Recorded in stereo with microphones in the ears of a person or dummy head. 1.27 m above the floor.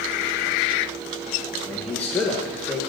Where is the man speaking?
10° left (ahead or behind), 1.5 m.